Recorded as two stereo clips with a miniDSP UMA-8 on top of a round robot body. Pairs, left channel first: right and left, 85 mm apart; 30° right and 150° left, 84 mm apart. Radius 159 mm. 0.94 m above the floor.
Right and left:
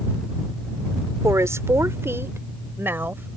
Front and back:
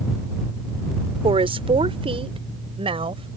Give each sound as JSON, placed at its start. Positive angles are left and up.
{"t": 1.2, "sound": "a woman speaking", "azimuth_deg": 145}